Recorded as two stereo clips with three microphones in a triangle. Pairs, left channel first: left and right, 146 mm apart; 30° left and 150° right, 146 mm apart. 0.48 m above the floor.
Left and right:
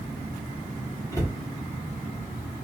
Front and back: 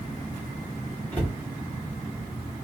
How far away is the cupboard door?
About 1.2 m.